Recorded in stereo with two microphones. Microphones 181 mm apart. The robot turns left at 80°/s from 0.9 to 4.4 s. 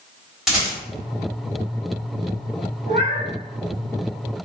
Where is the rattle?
5° right (ahead or behind), 1.9 m.